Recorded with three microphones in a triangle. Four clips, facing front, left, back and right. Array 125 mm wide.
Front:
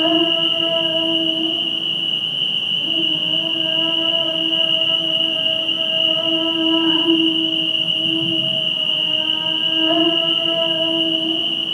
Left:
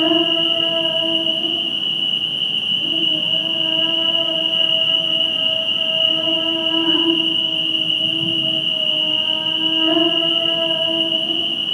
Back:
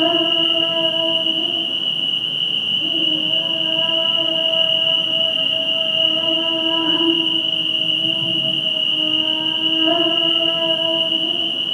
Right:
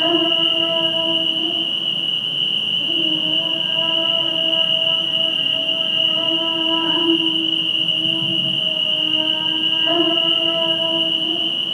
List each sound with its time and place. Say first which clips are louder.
0.0 s an insect: left 1 dB, front 1 dB; 110° right, 1.6 m